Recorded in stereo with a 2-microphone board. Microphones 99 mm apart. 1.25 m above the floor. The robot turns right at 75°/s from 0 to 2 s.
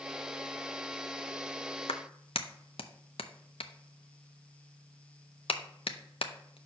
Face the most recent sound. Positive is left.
turn(degrees=70)  # may be behind; listen again after turning